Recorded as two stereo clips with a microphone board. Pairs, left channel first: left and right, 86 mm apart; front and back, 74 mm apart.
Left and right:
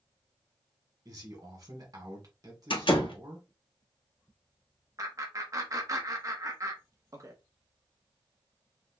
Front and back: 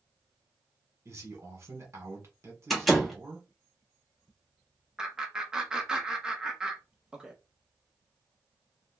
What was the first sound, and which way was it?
A man speaking, 130° right.